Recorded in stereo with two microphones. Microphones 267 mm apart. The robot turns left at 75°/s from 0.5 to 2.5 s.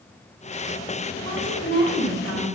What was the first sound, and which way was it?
A woman speaking, 160° left.